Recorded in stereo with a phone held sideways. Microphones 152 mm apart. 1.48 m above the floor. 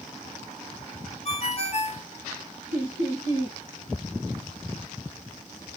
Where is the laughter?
55° left (ahead or behind), 1.9 m.